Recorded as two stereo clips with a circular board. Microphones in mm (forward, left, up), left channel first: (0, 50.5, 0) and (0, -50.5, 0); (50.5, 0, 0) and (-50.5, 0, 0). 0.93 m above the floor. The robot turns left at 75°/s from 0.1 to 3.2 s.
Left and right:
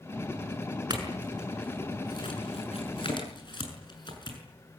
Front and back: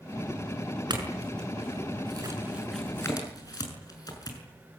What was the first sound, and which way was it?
A clink, 135° right.